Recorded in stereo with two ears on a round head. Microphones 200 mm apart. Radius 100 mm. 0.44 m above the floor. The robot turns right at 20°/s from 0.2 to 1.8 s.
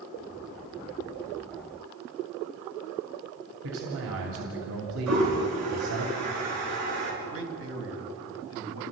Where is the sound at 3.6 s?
65° right (ahead or behind), 2.5 m.